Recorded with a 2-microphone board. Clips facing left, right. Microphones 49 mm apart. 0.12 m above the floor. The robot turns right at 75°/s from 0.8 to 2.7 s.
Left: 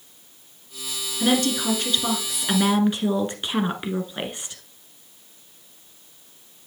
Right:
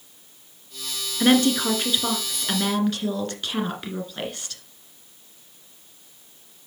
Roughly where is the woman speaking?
Right.